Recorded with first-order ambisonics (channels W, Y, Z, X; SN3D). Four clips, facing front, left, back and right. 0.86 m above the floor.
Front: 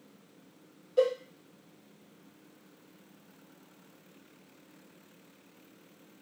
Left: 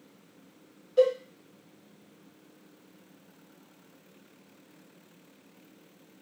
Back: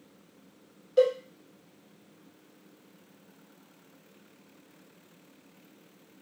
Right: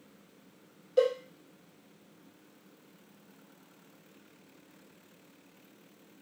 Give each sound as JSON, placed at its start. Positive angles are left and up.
{"t": 1.0, "sound": "a cowbell", "azimuth_deg": -135, "distance_m": 0.9}